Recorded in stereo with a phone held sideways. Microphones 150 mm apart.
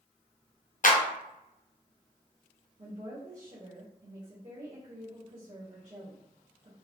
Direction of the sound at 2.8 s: 55° right (ahead or behind).